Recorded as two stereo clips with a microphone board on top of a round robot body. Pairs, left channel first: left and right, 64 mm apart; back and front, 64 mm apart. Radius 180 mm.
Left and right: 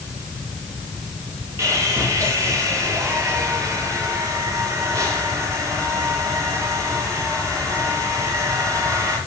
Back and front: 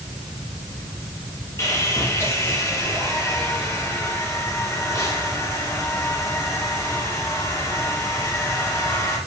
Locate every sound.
1.6 s sawing: 135° right, 7.5 m